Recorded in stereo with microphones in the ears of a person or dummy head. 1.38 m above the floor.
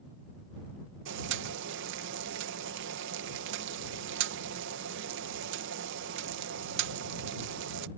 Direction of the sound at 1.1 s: 70° right (ahead or behind).